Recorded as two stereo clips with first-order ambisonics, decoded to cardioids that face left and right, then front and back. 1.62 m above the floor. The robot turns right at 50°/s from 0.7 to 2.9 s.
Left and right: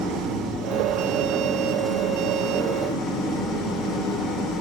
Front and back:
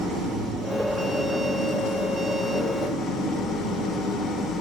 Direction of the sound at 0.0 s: 65° right.